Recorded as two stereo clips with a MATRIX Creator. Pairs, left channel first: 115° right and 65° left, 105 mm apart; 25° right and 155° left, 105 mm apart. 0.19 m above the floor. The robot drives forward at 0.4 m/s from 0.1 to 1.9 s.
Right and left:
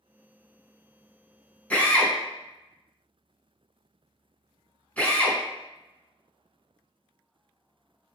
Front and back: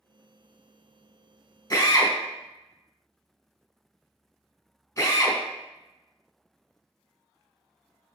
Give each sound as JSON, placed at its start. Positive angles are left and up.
{"t": 1.7, "sound": "a drill", "azimuth_deg": -45, "distance_m": 1.4}